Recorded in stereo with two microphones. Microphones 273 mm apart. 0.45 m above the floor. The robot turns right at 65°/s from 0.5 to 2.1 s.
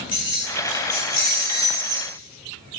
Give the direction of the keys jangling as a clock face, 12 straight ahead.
5 o'clock.